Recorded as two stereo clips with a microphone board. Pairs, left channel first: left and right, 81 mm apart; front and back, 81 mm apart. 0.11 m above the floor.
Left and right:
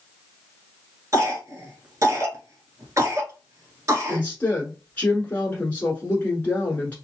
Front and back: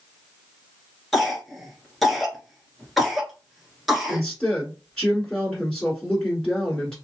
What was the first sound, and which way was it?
A cough, 90° right.